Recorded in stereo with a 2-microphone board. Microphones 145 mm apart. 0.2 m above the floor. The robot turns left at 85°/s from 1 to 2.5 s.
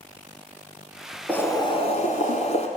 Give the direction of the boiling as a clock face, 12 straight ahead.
6 o'clock.